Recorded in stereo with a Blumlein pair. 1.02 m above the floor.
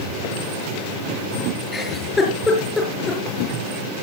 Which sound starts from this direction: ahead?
A giggle, at 1.7 s.